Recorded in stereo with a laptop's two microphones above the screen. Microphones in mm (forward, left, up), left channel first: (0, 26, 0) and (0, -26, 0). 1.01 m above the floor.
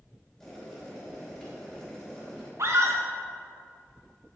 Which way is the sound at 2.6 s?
60° right (ahead or behind).